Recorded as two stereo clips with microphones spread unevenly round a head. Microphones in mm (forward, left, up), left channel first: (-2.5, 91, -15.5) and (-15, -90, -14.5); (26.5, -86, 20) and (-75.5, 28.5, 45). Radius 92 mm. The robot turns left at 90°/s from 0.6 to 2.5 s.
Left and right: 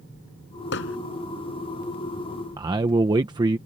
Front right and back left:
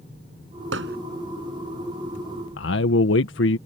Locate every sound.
0.7 s hammering: 110° left; by 1.0 s 90° left
2.6 s a man speaking: 25° right